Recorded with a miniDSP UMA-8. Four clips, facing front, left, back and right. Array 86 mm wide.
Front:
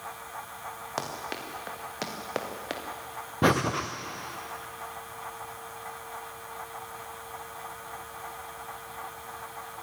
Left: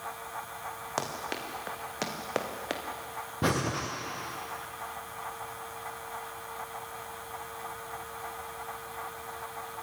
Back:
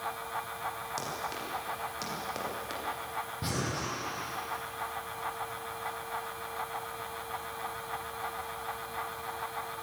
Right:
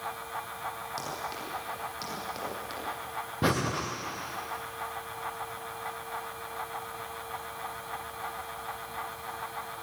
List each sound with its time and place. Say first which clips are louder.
1.0 s running footsteps: left 2 dB, front 2 dB; 50° left, 5.5 m; by 2.8 s 55° left, 3.5 m
3.4 s breathing: right 1 dB, front 13 dB; 5° right, 3.5 m